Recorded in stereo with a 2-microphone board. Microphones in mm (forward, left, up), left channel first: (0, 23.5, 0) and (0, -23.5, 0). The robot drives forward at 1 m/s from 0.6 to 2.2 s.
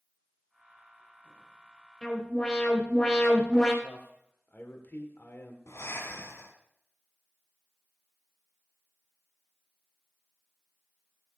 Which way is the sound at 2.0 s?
20° left (ahead or behind).